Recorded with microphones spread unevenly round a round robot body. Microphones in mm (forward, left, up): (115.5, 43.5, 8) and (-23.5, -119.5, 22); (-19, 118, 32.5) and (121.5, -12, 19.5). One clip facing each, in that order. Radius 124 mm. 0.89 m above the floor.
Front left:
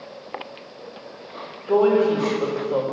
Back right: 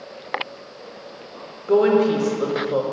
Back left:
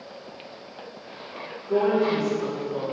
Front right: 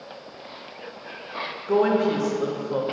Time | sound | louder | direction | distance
1.7 | a woman speaking | back right 1 dB, front right 1 dB | 60° right | 1.1 m